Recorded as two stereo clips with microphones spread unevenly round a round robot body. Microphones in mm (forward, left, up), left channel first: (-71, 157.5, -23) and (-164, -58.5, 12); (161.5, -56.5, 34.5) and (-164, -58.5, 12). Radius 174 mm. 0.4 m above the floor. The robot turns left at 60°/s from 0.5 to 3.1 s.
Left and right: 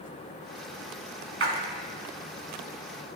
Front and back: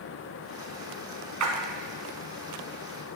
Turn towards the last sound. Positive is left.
turn(degrees=115)